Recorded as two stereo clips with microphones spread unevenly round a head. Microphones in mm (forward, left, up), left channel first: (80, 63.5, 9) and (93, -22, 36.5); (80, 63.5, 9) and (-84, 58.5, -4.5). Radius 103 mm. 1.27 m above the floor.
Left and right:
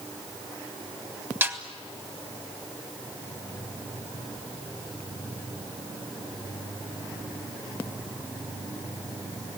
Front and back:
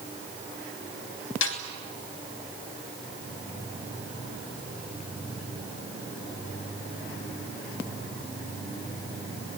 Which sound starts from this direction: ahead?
A snare drum, at 1.4 s.